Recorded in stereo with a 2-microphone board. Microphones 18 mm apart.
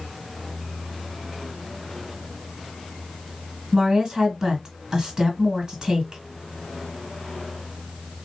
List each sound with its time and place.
3.7 s a woman speaking: 45° right (ahead or behind), 1.9 m